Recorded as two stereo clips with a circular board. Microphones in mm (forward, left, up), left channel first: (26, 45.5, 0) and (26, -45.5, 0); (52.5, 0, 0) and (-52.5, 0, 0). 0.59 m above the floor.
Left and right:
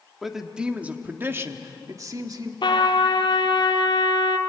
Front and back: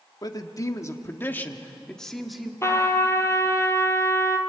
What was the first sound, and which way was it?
A man speaking, 5° right.